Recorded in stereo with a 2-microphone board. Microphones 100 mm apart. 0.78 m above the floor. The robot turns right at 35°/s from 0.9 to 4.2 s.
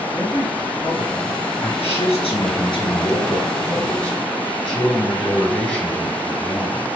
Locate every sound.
0.1 s a man speaking: 20° left (ahead or behind), 4 m; by 1.7 s 45° left (ahead or behind), 4 m
1.8 s a man speaking: 85° left, 4.5 m; by 6.9 s 170° left, 4.5 m